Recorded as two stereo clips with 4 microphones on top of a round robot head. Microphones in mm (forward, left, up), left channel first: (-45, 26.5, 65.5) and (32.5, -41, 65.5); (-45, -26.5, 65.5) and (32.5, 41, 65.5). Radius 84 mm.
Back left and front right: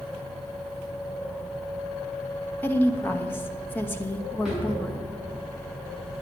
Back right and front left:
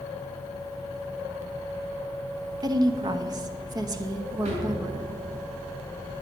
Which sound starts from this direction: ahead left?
A drawer, at 4.5 s.